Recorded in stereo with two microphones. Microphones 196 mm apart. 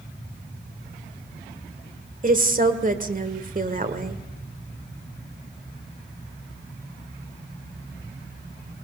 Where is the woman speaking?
40° right (ahead or behind), 1.8 m.